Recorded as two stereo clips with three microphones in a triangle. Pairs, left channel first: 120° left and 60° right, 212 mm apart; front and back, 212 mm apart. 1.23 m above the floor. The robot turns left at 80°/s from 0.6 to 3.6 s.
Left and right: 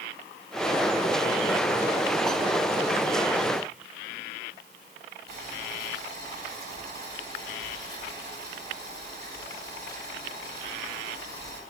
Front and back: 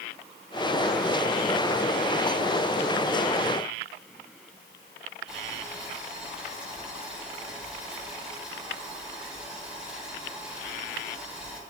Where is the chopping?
No chopping in this recording.